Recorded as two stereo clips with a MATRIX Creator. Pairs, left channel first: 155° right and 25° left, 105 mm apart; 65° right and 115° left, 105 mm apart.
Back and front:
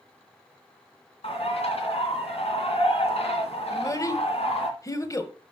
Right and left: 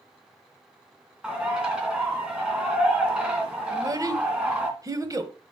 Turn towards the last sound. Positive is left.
turn(degrees=155)